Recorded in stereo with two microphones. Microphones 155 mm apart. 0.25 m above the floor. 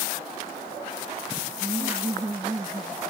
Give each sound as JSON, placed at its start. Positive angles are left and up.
{"t": 1.6, "sound": "laughter", "side_deg": -25}